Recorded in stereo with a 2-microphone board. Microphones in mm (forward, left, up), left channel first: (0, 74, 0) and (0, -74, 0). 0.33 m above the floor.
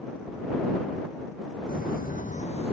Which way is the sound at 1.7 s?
80° left.